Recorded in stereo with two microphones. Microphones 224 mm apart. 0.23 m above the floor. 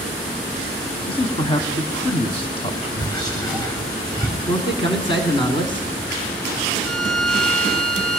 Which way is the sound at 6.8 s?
5° left (ahead or behind).